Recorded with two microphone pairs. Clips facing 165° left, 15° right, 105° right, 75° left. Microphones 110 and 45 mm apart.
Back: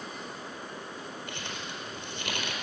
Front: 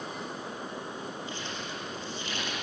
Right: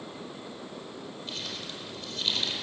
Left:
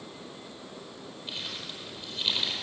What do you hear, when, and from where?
1.3 s crumpling: 140° left, 4.5 m